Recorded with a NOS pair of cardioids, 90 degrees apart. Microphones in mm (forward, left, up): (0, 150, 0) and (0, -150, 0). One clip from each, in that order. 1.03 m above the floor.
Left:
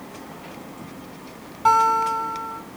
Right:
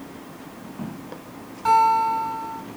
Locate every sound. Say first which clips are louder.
1.6 s a guitar: even; 30° left, 7 m